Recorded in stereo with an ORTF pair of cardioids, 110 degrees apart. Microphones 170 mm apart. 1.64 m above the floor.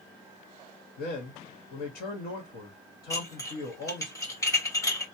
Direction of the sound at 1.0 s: 60° left.